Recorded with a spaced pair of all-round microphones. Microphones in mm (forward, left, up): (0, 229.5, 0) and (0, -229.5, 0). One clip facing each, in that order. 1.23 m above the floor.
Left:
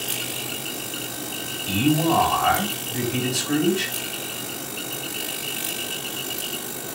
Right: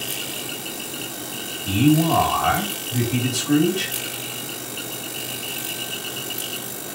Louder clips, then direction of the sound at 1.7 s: Right 3 dB; 50° right (ahead or behind).